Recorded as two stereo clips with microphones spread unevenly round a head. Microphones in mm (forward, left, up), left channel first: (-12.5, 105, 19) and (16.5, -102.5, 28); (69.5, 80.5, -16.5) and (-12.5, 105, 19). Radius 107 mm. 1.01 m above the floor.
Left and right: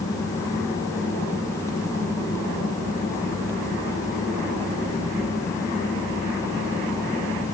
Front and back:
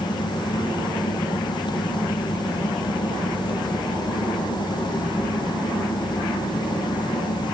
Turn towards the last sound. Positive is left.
No sound to turn to.